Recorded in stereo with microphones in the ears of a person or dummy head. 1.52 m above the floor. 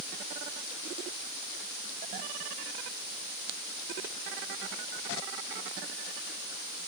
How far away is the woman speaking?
No woman speaking in this recording.